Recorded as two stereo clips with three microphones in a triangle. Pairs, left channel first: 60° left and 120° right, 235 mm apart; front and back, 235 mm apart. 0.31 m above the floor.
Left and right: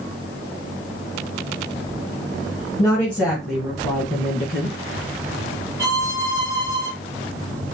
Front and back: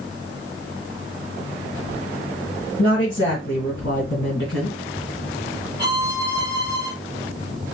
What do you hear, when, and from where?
2.8 s a woman speaking: 20° right, 3 m; by 4.8 s 25° right, 4 m
5.8 s a violin: 45° right, 4 m